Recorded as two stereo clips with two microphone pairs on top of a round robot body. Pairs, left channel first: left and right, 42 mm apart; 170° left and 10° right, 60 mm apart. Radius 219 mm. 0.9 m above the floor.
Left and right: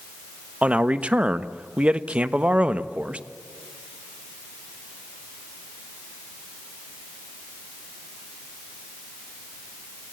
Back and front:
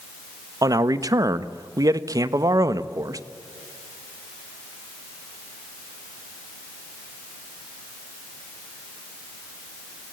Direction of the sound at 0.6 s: 30° right.